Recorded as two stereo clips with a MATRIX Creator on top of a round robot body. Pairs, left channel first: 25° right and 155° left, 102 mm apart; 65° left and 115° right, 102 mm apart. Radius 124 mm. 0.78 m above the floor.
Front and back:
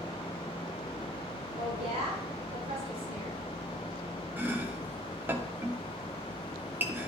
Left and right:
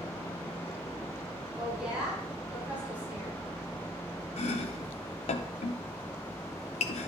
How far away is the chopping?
About 0.7 m.